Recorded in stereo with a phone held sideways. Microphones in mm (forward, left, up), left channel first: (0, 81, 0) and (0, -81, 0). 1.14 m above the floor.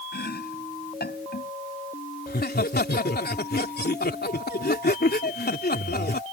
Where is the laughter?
80° left.